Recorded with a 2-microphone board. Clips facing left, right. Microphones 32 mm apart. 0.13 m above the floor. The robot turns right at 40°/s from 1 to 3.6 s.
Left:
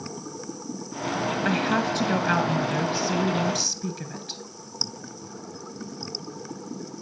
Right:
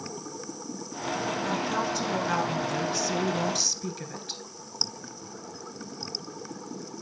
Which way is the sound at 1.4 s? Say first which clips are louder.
Left 6 dB; 90° left.